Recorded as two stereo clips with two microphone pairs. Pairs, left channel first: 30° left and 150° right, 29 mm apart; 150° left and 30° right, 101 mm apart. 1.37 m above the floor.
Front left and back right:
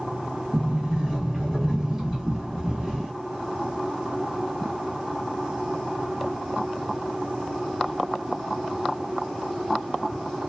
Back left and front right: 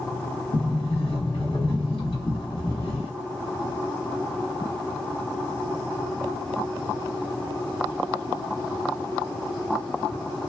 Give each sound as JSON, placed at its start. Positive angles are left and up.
{"t": 0.5, "sound": "a sliding door", "azimuth_deg": 135, "distance_m": 1.4}